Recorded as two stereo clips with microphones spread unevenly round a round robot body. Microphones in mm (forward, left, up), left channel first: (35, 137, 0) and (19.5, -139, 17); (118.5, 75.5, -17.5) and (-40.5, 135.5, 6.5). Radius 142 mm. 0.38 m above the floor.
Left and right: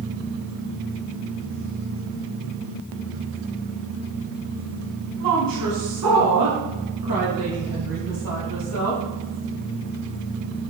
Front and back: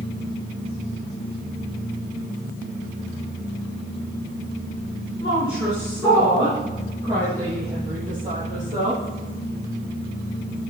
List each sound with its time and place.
5.2 s a woman speaking: 85° right, 3 m; by 9.0 s 130° right, 7 m